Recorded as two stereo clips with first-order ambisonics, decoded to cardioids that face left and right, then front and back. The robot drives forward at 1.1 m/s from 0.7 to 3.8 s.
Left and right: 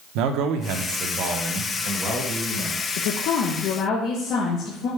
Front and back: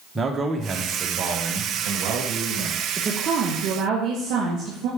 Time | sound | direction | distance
0.1 | a man speaking | 105° right | 1.0 m
3.0 | a woman speaking | 100° left | 0.8 m